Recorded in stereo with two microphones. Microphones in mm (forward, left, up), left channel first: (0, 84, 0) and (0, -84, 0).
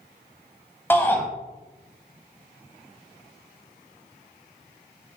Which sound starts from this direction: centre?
A shout, at 0.9 s.